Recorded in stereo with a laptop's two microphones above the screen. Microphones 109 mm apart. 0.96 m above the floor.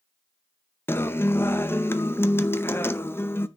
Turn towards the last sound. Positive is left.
turn(degrees=20)  # may be behind; listen again after turning